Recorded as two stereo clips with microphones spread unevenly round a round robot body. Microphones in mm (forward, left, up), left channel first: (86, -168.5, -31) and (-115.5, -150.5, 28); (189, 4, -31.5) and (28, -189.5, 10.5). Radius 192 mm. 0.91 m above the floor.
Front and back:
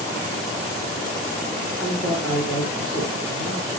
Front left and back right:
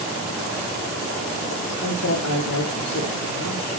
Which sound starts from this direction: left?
A man speaking, at 1.8 s.